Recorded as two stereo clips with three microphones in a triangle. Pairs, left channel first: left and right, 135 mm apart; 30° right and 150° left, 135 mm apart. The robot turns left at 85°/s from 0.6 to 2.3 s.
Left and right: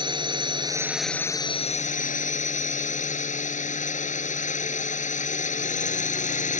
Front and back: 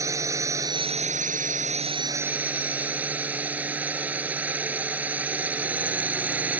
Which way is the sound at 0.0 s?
145° right.